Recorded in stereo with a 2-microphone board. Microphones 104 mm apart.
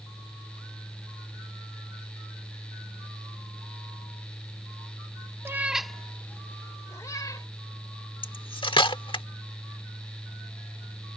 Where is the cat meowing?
25° right (ahead or behind); by 7.5 s 35° left (ahead or behind).